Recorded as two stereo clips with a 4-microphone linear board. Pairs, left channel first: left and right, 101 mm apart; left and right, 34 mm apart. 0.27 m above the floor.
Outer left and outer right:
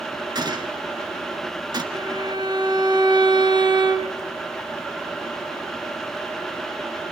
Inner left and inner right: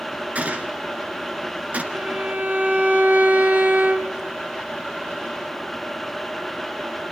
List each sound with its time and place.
0.3 s a gunshot: 45° right (ahead or behind), 1.9 m
1.9 s a violin: 50° right (ahead or behind), 2 m